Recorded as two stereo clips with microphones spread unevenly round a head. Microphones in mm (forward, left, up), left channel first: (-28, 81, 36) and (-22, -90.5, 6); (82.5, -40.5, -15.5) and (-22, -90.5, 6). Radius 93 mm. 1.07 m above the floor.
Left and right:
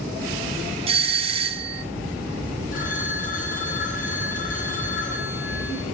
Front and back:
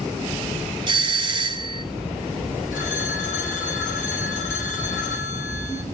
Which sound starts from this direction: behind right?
A doorbell, at 0.9 s.